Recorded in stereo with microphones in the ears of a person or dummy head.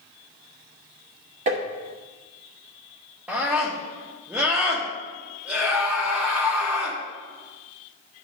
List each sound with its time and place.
1.5 s tapping: 35° right (ahead or behind), 1.4 m
3.3 s a scream: 5° right (ahead or behind), 1.2 m